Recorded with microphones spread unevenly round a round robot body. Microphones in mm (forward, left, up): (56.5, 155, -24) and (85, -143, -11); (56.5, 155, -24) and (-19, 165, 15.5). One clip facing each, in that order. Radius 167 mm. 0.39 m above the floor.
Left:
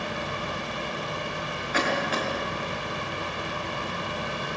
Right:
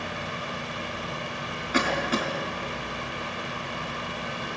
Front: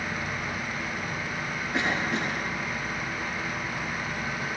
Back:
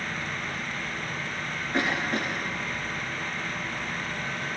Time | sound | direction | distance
1.7 | a cough | 105° right | 3.5 m